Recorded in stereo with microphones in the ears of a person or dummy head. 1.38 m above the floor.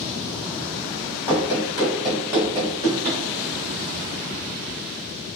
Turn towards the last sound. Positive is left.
turn(degrees=-25)  # may be behind; listen again after turning